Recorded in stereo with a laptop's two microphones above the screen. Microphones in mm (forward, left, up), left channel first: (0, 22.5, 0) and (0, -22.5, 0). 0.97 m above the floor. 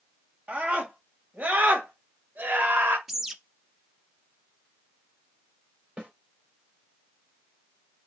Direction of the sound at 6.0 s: 20° right (ahead or behind).